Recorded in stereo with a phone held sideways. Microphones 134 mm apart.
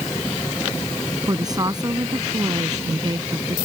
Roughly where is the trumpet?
No trumpet in this recording.